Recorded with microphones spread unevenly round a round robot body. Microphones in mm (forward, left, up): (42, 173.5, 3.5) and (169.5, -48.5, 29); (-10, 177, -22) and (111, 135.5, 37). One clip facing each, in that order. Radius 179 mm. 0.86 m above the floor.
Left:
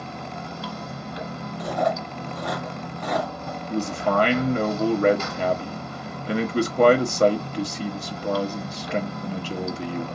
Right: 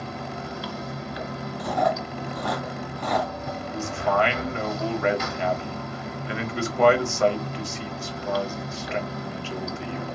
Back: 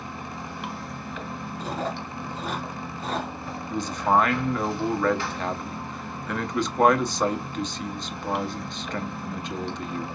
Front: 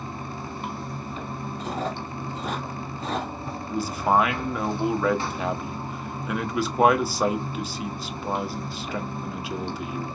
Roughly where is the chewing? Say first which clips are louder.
Even, even; right.